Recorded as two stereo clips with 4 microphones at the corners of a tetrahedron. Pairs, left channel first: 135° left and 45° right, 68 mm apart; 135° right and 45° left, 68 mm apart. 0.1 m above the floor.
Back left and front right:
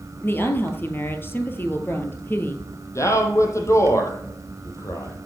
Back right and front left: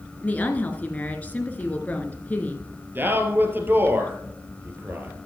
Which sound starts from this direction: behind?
A woman speaking, at 0.2 s.